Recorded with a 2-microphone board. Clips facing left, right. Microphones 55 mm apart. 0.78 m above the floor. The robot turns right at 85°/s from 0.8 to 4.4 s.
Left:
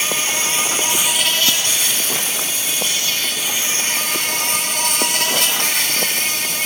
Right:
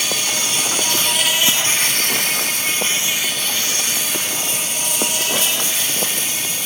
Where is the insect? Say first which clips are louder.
Left 1 dB; 145° left, 1.3 m; by 6.7 s 90° left, 1.3 m.